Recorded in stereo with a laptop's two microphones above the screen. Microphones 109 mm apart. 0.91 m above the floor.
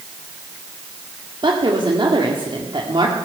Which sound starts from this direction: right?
A woman speaking, at 1.4 s.